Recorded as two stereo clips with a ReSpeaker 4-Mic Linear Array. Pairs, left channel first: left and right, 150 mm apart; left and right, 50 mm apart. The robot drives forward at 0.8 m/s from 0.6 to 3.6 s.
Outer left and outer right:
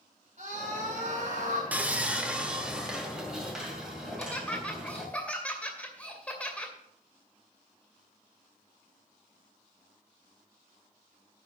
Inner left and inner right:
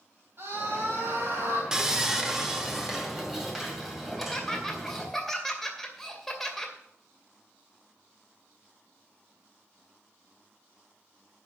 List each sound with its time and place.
0.4 s a scream: 45° right (ahead or behind), 4 m; by 1.6 s 55° right (ahead or behind), 3.5 m
1.7 s sawing: 10° right (ahead or behind), 1.0 m; by 5.1 s 5° right (ahead or behind), 2.5 m
4.1 s laughter: 10° left (ahead or behind), 2.5 m